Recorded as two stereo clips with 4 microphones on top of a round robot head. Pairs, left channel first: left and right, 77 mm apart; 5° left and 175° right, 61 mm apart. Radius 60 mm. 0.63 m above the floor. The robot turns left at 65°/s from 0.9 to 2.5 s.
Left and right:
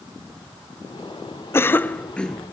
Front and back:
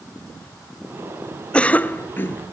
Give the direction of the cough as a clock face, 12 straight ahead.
10 o'clock.